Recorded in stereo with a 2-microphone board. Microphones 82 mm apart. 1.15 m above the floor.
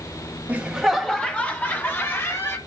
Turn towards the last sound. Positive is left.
turn(degrees=30)  # may be behind; listen again after turning